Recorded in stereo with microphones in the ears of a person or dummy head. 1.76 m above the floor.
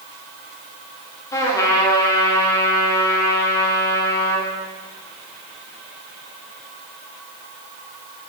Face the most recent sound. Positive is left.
turn(degrees=15)  # may be behind; listen again after turning